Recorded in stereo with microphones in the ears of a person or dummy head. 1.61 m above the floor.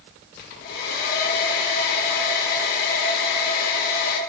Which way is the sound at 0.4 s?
50° left (ahead or behind).